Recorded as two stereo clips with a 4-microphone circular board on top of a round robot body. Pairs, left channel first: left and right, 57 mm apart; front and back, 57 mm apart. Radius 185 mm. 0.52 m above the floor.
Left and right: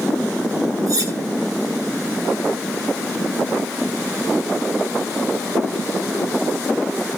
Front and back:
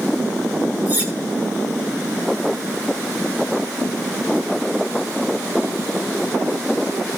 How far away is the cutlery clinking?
About 2.5 m.